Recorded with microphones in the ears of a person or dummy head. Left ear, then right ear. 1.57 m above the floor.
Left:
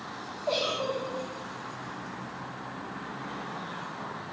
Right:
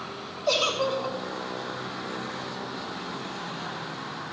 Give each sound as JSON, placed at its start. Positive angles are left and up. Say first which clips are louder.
{"t": 0.5, "sound": "a giggle", "louder": "right 5 dB", "side_deg": -75, "distance_m": 3.5}